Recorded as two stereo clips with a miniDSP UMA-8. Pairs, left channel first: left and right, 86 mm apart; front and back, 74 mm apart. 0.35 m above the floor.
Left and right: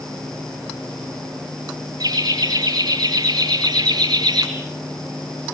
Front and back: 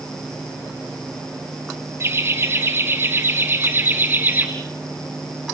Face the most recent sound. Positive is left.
turn(degrees=-120)